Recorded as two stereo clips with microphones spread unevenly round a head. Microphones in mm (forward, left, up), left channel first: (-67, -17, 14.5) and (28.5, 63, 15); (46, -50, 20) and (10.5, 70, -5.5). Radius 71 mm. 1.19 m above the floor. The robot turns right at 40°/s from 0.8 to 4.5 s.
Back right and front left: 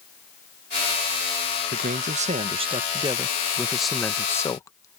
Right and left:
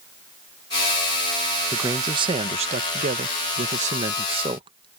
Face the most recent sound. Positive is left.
turn(degrees=155)